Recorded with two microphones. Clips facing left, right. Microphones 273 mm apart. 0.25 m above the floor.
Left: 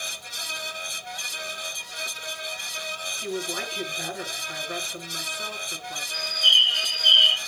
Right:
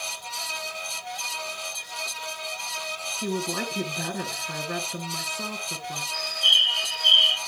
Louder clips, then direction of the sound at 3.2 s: Right 2 dB; 55° right (ahead or behind).